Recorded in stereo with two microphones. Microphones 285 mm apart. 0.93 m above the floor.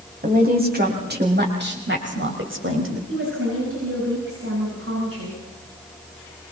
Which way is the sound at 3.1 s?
50° right (ahead or behind).